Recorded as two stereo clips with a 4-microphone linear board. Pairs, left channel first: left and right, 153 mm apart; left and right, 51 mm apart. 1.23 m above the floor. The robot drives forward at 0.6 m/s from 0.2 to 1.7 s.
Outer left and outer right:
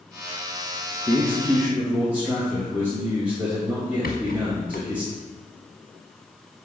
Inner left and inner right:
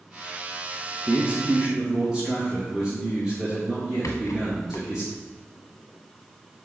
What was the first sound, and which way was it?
A man speaking, 15° right (ahead or behind).